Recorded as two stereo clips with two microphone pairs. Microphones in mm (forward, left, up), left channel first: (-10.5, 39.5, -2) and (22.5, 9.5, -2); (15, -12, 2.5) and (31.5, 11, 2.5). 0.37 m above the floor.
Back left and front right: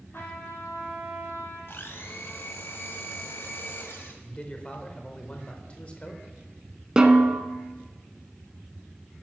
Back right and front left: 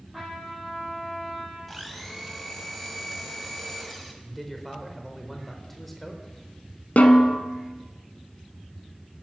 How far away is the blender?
About 1.1 m.